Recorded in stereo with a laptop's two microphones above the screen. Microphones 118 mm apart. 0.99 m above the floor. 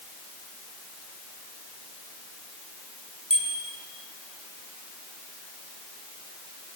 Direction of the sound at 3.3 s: 50° right (ahead or behind).